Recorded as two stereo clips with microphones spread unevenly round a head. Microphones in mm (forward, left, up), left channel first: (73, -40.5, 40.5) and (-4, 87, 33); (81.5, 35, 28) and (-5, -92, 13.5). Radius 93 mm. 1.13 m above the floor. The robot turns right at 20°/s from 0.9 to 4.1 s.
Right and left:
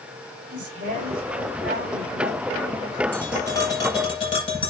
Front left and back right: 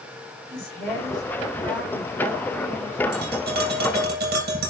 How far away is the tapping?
About 7.5 m.